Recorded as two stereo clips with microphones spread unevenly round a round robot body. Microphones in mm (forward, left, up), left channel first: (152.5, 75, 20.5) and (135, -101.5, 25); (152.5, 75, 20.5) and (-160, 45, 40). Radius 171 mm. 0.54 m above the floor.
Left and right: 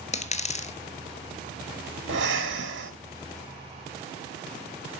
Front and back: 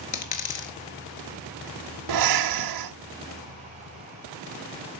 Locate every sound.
0.1 s a dropped coin: 35° left, 1.2 m
2.1 s breathing: 140° right, 1.0 m